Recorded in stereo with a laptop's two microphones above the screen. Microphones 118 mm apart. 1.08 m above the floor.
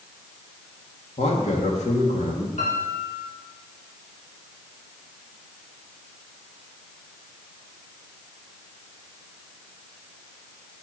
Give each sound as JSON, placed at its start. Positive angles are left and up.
{"t": 1.2, "sound": "a man speaking", "side_deg": 75, "distance_m": 1.8}
{"t": 2.6, "sound": "a piano", "side_deg": 75, "distance_m": 3.5}